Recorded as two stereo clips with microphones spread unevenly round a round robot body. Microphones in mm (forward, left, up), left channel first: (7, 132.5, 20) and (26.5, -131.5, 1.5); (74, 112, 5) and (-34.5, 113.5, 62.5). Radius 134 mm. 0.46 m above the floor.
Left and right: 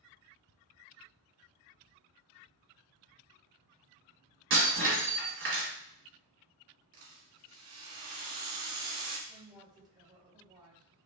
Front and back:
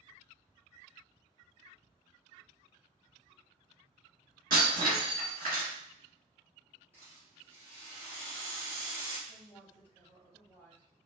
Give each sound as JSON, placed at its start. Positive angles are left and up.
{"t": 4.5, "sound": "breaking glass", "azimuth_deg": -135, "distance_m": 2.0}
{"t": 6.9, "sound": "a rattle", "azimuth_deg": -100, "distance_m": 1.5}
{"t": 9.3, "sound": "a woman speaking", "azimuth_deg": -20, "distance_m": 1.1}